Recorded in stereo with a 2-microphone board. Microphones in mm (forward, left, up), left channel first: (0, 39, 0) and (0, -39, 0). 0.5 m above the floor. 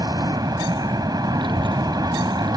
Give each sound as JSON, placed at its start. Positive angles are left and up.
{"t": 0.0, "sound": "an aircraft", "side_deg": -50}
{"t": 1.4, "sound": "a child speaking", "side_deg": -85}